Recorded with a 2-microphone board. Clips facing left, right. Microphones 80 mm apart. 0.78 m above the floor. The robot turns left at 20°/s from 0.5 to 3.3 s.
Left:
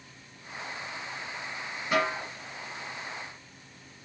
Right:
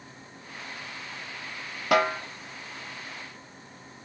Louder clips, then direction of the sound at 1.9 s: Right 4 dB; 80° right.